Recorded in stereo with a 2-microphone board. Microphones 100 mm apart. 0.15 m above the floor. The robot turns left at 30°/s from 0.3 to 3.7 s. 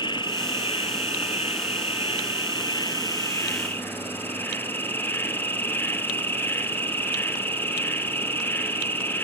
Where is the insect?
125° left, 0.9 m; by 9.2 s 20° left, 0.9 m.